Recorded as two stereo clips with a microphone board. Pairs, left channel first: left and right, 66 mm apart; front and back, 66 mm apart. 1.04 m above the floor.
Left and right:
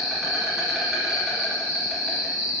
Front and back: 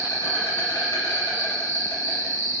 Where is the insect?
5° right, 1.4 m.